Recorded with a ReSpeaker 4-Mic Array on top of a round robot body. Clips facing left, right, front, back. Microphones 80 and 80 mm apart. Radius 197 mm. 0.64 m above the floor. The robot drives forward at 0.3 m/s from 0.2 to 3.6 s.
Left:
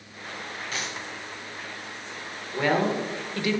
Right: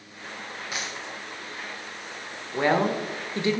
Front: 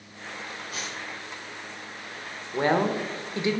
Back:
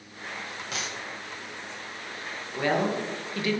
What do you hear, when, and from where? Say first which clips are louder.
0.7 s a dropped coin: even, back 3 dB; 170° right, 0.6 m
2.5 s a woman speaking: right 1 dB, front 2 dB; 30° right, 1.1 m; by 3.6 s 55° right, 0.9 m